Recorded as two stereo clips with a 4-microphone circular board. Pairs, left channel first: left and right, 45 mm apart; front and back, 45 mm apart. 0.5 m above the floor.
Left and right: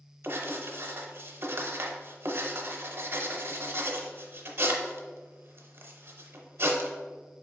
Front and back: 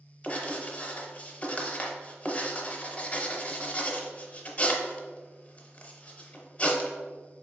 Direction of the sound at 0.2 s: 60° right.